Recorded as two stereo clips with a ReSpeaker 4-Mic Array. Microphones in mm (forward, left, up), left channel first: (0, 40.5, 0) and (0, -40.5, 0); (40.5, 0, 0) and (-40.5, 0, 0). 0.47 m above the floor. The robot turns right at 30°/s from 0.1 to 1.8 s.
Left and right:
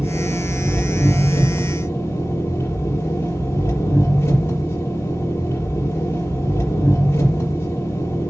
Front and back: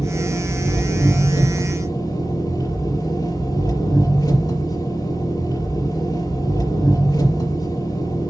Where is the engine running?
15° right, 6 m; by 8.3 s 35° left, 6 m.